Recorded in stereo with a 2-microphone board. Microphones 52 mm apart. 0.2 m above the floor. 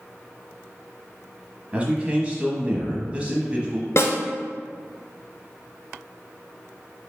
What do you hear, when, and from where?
1.7 s a man speaking: 25° right (ahead or behind), 1.0 m
4.0 s a snare drum: 65° left (ahead or behind), 0.8 m